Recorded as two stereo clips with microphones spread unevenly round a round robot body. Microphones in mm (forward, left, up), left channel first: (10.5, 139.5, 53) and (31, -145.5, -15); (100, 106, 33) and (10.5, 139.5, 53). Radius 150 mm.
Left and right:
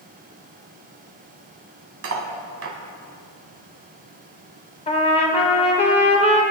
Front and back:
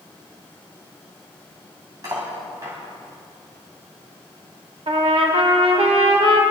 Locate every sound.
2.0 s cutlery clinking: 130° right, 2 m
4.9 s a trumpet: 170° left, 1.9 m